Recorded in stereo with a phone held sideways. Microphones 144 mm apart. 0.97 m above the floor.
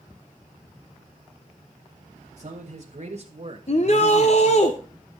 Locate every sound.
2.4 s a man speaking: 60° right (ahead or behind), 1.4 m; by 4.7 s 10° right (ahead or behind), 1.0 m
3.7 s a shout: 50° left (ahead or behind), 0.6 m